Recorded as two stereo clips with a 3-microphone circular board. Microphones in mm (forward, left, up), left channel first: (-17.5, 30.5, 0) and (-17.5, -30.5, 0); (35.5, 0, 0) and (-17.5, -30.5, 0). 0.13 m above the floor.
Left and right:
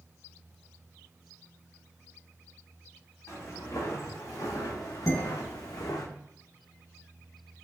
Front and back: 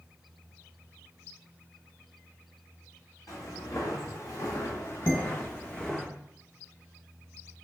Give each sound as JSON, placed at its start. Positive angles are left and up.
{"t": 3.3, "sound": "footsteps", "azimuth_deg": 50, "distance_m": 1.6}
{"t": 5.1, "sound": "dishes clattering", "azimuth_deg": 105, "distance_m": 1.5}